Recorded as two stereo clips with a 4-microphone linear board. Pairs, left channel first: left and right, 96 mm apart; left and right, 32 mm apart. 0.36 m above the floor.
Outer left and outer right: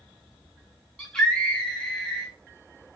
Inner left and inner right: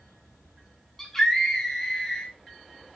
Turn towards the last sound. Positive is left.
turn(degrees=10)  # may be behind; listen again after turning